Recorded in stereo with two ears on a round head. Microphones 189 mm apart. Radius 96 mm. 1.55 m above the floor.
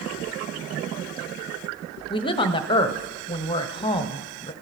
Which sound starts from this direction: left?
A woman speaking, at 2.1 s.